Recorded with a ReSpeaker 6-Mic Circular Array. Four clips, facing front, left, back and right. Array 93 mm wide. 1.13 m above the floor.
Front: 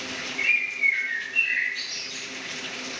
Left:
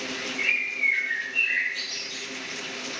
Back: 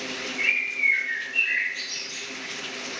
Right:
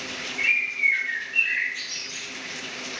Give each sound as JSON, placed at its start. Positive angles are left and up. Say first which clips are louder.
{"t": 0.4, "sound": "a bird", "louder": "right 6 dB, front 1 dB", "azimuth_deg": -125, "distance_m": 0.9}